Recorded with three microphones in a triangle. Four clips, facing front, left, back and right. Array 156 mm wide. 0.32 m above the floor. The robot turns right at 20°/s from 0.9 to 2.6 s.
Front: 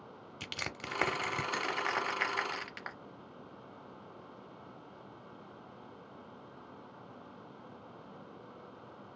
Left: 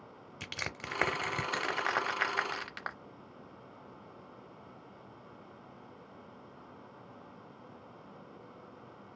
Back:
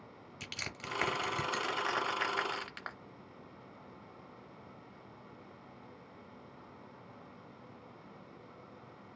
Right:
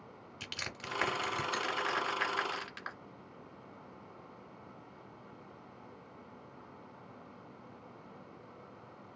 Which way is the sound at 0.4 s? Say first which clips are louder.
Left 3 dB, front 3 dB; 50° left.